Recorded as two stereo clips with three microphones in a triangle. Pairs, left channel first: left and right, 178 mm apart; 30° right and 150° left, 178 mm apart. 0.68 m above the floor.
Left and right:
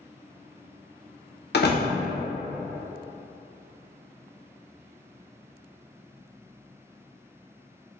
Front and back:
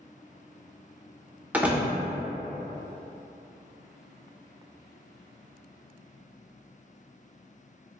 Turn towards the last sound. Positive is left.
turn(degrees=70)